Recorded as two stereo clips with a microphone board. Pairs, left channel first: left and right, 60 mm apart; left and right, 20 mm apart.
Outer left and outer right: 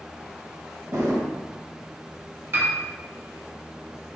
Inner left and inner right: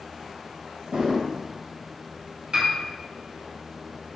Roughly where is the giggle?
I don't hear a giggle.